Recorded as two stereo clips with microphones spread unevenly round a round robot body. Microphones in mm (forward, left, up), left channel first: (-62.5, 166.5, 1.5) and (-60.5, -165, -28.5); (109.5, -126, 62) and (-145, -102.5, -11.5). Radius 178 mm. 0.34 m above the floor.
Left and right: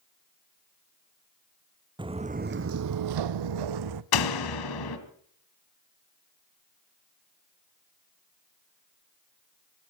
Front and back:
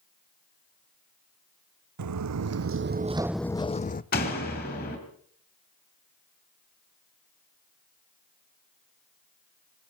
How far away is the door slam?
About 2 m.